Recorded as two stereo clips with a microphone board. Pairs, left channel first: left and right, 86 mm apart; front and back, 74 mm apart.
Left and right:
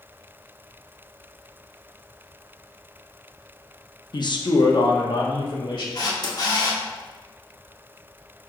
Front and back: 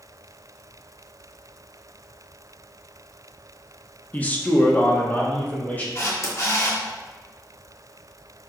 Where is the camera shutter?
50° left, 1.4 m.